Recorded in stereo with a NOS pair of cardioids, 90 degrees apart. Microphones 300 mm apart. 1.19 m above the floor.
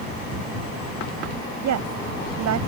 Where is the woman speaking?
70° right.